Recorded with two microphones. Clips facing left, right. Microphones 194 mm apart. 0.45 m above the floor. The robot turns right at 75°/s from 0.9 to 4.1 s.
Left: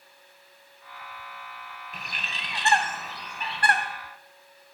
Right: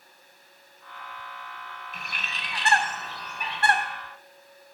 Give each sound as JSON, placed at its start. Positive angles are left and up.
{"t": 1.9, "sound": "a bird", "azimuth_deg": 95, "distance_m": 0.9}